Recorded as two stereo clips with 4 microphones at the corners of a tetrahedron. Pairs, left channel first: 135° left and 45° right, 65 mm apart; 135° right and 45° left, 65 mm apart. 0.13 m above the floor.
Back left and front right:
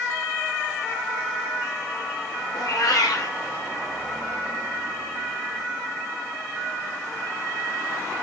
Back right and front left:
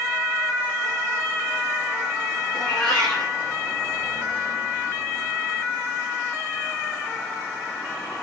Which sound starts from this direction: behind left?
A cat meowing, at 2.5 s.